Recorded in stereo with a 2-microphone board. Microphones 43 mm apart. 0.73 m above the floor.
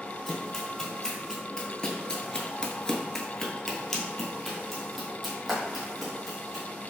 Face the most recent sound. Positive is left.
turn(degrees=0)  # may be behind; listen again after turning